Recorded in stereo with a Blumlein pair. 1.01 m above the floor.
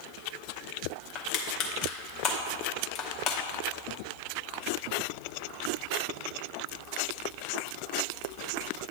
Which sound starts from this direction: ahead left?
Crushing, at 1.1 s.